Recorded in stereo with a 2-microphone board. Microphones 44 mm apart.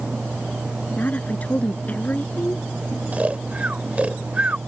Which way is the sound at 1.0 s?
40° left (ahead or behind).